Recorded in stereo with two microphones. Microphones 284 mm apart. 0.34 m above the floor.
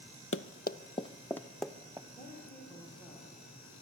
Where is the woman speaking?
10° left (ahead or behind), 7.5 m.